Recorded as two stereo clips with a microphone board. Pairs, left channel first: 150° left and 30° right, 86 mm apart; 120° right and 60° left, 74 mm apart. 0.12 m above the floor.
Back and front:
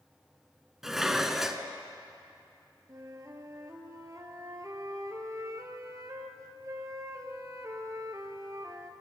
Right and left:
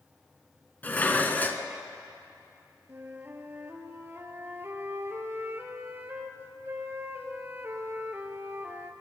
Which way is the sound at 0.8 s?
110° right.